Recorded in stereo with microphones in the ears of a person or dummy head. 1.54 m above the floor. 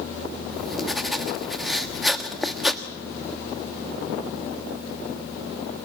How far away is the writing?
About 1.3 m.